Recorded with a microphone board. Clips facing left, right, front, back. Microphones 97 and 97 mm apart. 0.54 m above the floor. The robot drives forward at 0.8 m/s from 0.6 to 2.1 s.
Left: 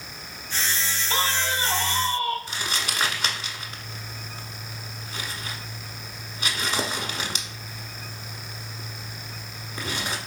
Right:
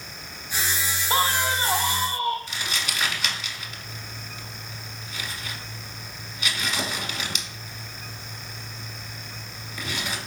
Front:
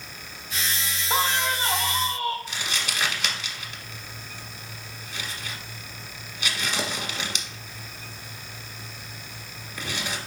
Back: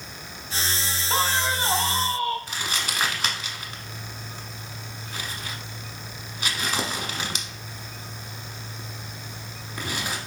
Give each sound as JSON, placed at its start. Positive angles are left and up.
{"t": 1.1, "sound": "a man speaking", "azimuth_deg": -75, "distance_m": 0.7}
{"t": 2.5, "sound": "crumpling", "azimuth_deg": 135, "distance_m": 0.9}